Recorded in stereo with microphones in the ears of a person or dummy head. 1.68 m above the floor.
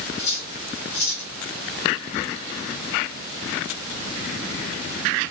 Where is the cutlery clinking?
65° left (ahead or behind), 1.6 m.